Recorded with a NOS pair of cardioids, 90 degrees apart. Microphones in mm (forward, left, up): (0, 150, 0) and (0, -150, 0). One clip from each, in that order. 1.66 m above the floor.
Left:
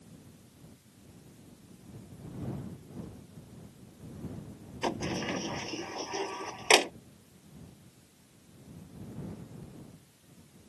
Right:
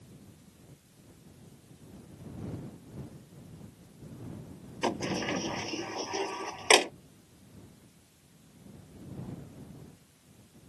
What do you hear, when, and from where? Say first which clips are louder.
4.8 s a sliding door: right 2 dB; 20° right